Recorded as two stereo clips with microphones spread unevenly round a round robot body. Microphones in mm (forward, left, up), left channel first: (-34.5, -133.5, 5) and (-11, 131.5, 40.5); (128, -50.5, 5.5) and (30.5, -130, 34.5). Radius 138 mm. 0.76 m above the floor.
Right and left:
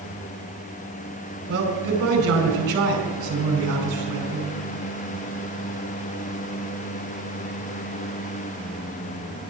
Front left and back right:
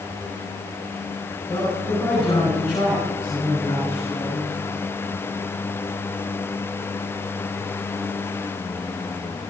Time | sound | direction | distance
1.5 | a man speaking | 125° left | 4.5 m